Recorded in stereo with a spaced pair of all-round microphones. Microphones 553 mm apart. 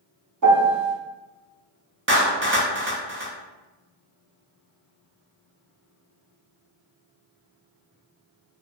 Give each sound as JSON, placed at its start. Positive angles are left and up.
{"t": 0.4, "sound": "a piano", "side_deg": -35, "distance_m": 0.5}
{"t": 2.1, "sound": "a clap", "side_deg": -25, "distance_m": 0.5}